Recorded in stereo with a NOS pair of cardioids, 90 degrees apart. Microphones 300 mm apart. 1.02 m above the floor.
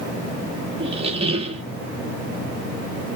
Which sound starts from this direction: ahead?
A squeak, at 0.8 s.